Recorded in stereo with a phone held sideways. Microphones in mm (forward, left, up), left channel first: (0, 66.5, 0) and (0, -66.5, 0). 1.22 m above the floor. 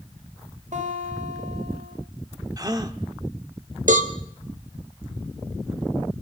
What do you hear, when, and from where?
0.7 s a guitar: 65° right (ahead or behind), 4 m
2.6 s a gasp: 30° right (ahead or behind), 1.1 m
3.9 s a cowbell: 75° right (ahead or behind), 1.4 m